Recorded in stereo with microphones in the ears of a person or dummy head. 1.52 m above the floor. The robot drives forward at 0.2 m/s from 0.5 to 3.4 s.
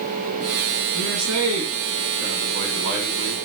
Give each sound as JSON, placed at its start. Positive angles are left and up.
{"t": 0.9, "sound": "a man speaking", "side_deg": -65, "distance_m": 1.8}